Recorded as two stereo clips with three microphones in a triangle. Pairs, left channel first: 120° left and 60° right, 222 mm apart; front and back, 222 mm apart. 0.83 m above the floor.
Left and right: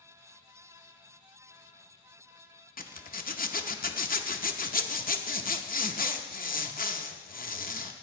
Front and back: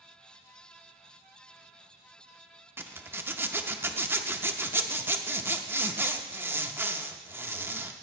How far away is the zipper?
About 0.7 m.